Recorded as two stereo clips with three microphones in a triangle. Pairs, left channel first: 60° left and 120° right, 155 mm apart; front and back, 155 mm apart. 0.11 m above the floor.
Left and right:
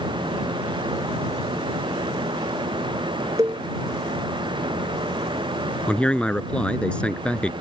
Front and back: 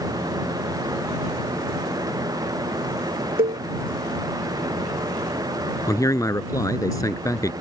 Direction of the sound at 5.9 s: 10° right.